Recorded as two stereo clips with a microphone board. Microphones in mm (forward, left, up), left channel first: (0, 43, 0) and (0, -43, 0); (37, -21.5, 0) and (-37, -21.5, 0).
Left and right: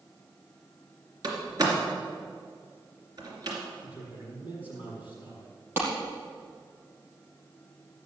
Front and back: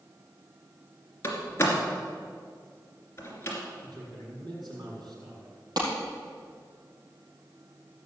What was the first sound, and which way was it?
A door slam, 55° right.